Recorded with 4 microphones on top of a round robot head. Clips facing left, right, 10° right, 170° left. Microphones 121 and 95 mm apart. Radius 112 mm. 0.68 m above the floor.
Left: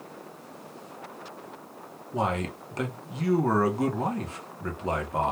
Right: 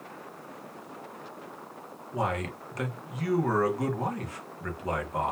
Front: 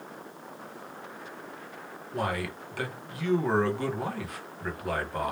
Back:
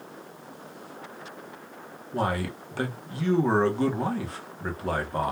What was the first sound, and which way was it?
A man speaking, 135° left.